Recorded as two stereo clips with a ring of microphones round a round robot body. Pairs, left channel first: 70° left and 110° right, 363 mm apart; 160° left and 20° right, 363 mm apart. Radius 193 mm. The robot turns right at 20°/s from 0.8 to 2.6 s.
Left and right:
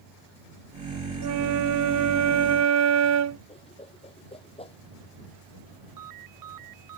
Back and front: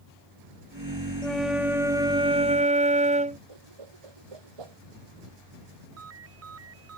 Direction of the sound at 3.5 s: 10° right.